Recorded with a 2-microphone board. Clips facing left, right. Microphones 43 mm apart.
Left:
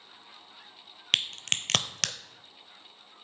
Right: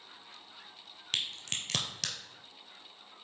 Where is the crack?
65° left (ahead or behind), 0.5 m.